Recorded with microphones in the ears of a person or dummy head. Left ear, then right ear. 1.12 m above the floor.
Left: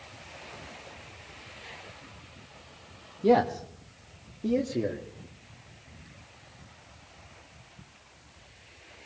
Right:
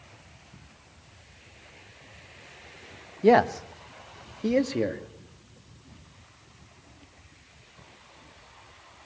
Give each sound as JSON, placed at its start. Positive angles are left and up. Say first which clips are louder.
{"t": 3.2, "sound": "a man speaking", "louder": "right 3 dB", "side_deg": -65, "distance_m": 1.2}